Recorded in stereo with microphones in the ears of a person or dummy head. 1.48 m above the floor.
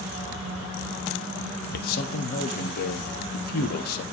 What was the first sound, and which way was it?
A man speaking, 55° left (ahead or behind).